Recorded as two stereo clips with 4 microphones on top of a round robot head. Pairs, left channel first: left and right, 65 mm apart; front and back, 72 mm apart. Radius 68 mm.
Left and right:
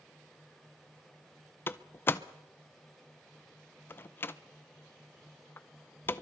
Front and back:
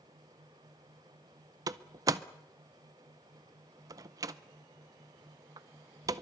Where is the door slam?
145° left, 0.6 m.